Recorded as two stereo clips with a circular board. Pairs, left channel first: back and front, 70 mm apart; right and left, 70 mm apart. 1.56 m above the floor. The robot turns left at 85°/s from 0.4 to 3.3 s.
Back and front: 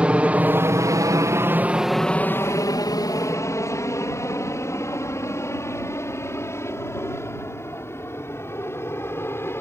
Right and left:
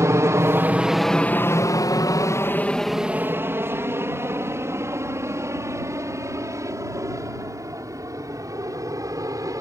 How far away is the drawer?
No drawer in this recording.